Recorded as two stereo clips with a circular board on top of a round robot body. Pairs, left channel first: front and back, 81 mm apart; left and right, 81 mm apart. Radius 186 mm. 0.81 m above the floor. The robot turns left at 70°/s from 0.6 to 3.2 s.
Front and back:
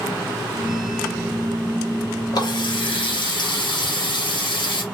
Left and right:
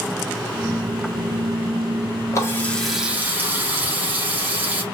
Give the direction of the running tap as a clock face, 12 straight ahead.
11 o'clock.